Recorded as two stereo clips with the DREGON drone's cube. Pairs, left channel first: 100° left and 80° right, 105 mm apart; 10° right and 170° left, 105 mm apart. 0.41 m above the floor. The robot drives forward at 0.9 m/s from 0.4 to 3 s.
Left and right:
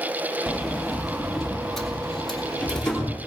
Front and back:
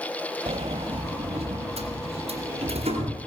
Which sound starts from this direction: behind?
A sliding door, at 0.5 s.